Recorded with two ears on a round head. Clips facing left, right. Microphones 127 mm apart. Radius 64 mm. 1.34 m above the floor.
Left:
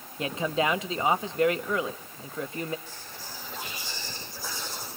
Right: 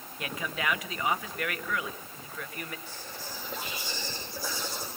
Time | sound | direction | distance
0.2 | a man speaking | 25° left (ahead or behind) | 1.2 m
2.9 | whispering | 85° right | 6.5 m